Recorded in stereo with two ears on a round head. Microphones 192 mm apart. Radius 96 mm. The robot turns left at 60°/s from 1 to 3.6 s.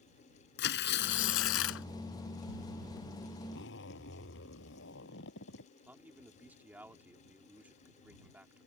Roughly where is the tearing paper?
Behind left.